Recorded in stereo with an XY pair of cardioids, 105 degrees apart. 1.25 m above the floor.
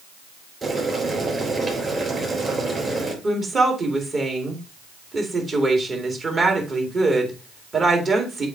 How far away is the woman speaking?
About 2.5 m.